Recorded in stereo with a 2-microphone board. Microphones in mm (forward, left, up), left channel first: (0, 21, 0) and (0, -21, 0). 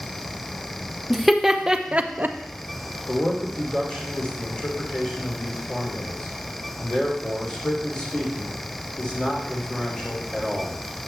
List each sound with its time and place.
1.1 s laughter: centre (ahead or behind), 1.0 m; by 2.4 s 50° right (ahead or behind), 0.6 m
3.1 s a man speaking: 20° left (ahead or behind), 3 m